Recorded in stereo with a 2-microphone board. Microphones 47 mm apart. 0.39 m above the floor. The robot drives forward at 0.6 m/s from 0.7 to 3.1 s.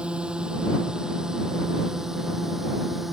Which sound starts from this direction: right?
A drone, at 0.0 s.